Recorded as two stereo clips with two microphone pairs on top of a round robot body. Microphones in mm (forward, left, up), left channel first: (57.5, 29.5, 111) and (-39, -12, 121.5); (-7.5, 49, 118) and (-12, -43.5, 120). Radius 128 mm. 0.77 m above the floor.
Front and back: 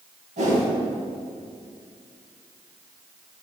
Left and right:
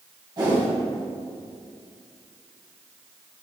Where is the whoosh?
140° right, 2.5 m.